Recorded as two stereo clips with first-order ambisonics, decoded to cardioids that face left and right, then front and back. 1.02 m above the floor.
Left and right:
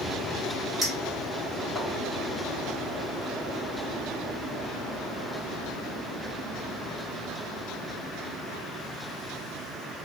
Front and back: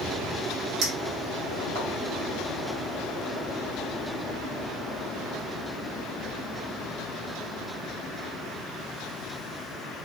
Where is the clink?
170° right, 1.2 m.